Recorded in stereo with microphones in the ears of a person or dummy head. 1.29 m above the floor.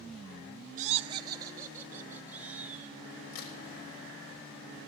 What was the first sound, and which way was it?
Laughter, 45° right (ahead or behind).